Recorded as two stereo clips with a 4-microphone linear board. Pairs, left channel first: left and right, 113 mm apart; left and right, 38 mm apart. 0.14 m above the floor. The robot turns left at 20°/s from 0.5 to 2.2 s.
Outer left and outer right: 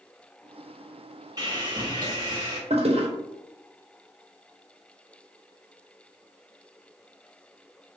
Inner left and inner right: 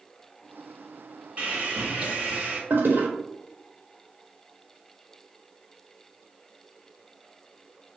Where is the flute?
I don't hear a flute.